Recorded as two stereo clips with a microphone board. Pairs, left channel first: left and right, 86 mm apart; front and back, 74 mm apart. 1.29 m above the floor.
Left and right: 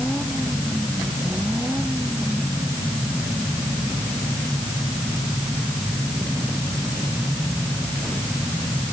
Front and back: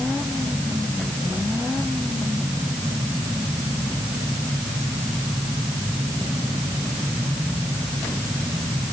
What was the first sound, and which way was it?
Only background noise.